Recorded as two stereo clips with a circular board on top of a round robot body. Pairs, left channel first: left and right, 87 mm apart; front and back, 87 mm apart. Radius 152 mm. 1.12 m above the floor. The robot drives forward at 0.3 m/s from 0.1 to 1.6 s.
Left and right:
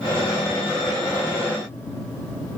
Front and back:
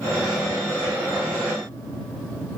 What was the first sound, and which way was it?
Only background noise.